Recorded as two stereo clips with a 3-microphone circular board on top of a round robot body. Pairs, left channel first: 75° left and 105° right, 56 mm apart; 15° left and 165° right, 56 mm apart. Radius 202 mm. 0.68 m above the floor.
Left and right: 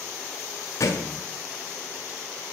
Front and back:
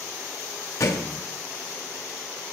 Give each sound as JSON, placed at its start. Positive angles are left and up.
{"t": 0.8, "sound": "a thud", "azimuth_deg": 40, "distance_m": 1.6}